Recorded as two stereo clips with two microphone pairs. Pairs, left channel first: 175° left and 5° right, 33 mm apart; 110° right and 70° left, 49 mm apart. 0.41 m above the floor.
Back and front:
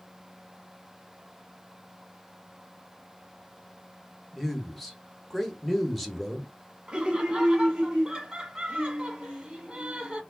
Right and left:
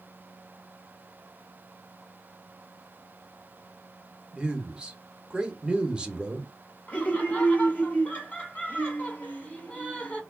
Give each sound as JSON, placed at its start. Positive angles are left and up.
{"t": 4.3, "sound": "a man speaking", "azimuth_deg": 90, "distance_m": 0.8}
{"t": 6.9, "sound": "laughter", "azimuth_deg": -65, "distance_m": 1.4}